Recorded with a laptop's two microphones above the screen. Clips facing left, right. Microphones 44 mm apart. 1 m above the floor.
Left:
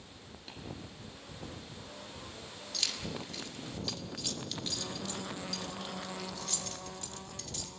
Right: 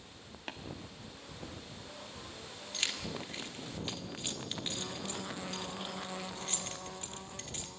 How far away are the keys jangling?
About 1.4 m.